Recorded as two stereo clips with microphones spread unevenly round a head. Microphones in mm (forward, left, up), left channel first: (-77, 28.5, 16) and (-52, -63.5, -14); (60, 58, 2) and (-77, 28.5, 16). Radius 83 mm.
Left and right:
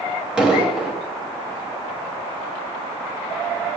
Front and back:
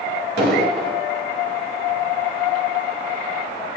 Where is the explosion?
160° right, 3 m.